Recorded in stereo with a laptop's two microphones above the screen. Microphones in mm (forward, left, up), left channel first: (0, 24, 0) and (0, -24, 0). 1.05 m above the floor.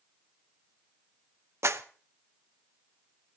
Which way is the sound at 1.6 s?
65° right (ahead or behind).